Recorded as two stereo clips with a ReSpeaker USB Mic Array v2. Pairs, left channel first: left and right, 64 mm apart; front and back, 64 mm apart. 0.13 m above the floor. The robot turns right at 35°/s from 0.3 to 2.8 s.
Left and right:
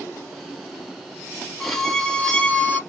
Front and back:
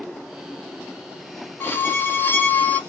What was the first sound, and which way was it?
A violin, 5° left.